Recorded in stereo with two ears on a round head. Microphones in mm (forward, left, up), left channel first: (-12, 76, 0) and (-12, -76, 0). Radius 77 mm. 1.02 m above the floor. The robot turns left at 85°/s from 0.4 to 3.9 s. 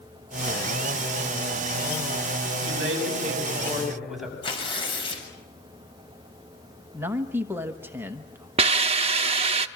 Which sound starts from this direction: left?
Tearing paper, at 4.4 s.